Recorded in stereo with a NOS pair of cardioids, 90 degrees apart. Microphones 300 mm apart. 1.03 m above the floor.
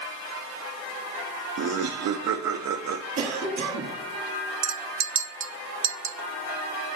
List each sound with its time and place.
1.6 s laughter: 65° right, 0.6 m
3.2 s a cough: 65° right, 1.9 m
4.6 s a clink: 40° right, 0.7 m